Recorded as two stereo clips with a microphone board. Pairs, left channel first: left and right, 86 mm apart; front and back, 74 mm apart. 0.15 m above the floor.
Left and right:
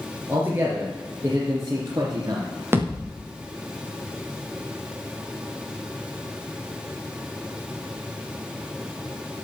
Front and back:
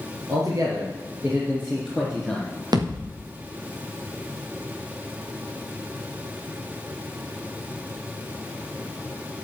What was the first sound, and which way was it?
A man speaking, 150° right.